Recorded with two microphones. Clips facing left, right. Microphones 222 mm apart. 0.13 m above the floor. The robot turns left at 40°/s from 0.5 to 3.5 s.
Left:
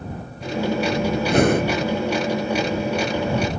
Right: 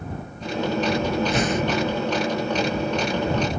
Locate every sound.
1.3 s breathing: 60° left (ahead or behind); by 1.8 s 55° left (ahead or behind)